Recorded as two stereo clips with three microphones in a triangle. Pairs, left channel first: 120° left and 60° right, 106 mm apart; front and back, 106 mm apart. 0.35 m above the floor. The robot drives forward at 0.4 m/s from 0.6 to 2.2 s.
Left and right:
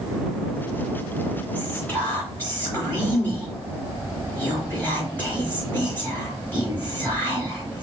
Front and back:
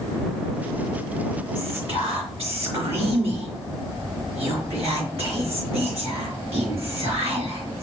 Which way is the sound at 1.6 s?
170° right.